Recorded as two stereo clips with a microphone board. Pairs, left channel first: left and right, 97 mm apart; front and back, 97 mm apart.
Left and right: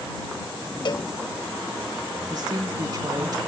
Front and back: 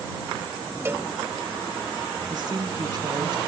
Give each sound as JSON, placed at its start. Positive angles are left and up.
{"t": 0.8, "sound": "a cowbell", "azimuth_deg": 120}
{"t": 2.3, "sound": "a woman speaking", "azimuth_deg": -135}